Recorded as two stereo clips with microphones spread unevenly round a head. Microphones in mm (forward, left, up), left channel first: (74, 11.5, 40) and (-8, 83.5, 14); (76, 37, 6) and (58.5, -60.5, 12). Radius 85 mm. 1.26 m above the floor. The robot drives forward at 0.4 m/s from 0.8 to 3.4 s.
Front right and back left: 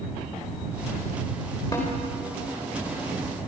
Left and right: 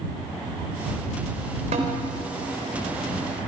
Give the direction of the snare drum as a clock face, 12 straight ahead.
4 o'clock.